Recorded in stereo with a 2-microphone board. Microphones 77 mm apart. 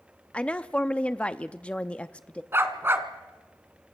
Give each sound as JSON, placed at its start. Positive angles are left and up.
{"t": 0.3, "sound": "a woman speaking", "side_deg": 15, "distance_m": 0.5}
{"t": 2.5, "sound": "a dog barking", "side_deg": -35, "distance_m": 1.5}